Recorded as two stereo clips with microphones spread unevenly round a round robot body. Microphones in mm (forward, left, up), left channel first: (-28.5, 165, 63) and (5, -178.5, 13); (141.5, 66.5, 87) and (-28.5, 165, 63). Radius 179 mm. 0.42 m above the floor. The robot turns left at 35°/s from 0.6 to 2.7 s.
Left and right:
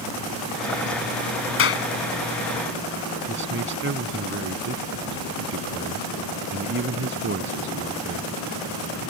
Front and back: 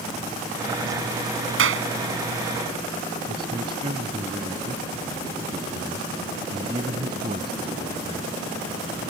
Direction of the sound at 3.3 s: 140° right.